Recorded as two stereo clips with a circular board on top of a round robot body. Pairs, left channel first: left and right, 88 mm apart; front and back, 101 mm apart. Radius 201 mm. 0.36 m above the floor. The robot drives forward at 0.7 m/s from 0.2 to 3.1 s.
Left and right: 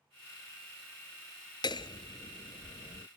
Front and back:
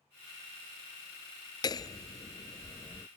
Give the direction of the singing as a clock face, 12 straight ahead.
No singing in this recording.